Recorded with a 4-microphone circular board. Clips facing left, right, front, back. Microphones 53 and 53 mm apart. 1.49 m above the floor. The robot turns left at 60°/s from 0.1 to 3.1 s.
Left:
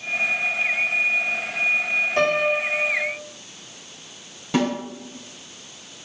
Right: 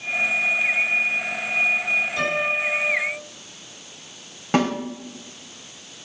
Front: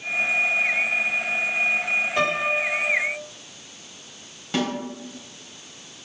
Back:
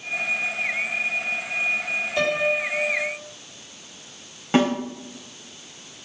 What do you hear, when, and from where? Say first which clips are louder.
2.2 s a piano: left 3 dB, back 4 dB; 60° left, 2.0 m; by 3.1 s 5° left, 2.0 m
4.5 s a snare drum: right 1 dB, back 6 dB; 125° right, 3 m